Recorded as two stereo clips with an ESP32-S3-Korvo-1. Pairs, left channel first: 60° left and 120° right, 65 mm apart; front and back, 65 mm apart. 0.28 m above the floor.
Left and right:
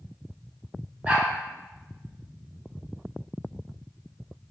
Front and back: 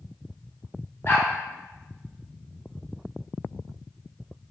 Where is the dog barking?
50° right, 1.6 m.